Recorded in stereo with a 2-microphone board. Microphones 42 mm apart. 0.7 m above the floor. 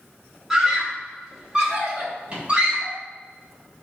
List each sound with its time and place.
0.5 s a scream: 10° right (ahead or behind), 2 m; by 3.0 s 25° right (ahead or behind), 3.5 m